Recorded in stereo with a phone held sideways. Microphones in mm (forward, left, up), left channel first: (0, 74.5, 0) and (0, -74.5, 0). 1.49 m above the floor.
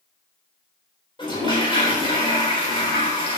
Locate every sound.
1.2 s a toilet flushing: 35° left (ahead or behind), 4 m